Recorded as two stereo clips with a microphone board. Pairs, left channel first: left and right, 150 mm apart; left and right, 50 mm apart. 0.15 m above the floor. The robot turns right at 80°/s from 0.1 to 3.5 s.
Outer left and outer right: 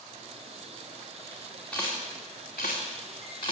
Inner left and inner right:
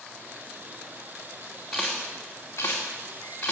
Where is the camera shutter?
5° left (ahead or behind), 2.5 m; by 3.5 s 30° left (ahead or behind), 2.5 m.